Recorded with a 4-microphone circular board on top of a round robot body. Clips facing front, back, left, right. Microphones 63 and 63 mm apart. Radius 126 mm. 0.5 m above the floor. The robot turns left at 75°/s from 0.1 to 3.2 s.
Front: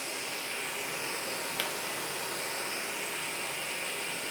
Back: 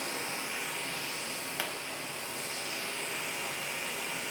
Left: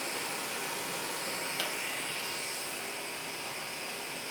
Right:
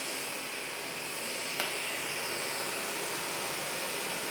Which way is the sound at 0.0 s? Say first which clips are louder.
Back 1 dB, left 2 dB; 135° left.